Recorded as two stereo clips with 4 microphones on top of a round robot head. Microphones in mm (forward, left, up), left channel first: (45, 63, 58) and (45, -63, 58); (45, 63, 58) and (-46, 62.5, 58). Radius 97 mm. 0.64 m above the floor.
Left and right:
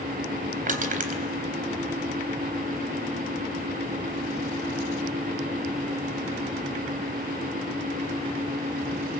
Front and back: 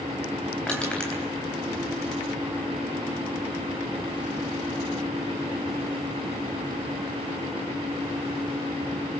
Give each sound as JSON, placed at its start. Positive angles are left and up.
{"t": 0.7, "sound": "crushing", "azimuth_deg": -85, "distance_m": 3.5}